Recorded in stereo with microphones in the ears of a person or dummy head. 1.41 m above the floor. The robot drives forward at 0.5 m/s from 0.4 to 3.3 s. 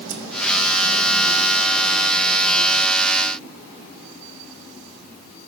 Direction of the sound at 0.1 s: 80° right.